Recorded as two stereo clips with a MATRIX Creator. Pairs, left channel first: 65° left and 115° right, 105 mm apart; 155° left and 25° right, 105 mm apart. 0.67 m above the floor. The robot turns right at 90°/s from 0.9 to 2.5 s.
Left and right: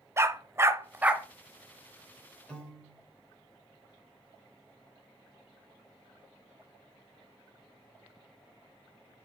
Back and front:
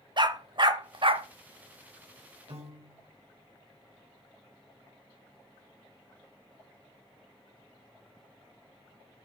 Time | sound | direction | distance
0.2 | a dog barking | 55° right | 0.6 m
2.5 | a piano | 15° right | 2.5 m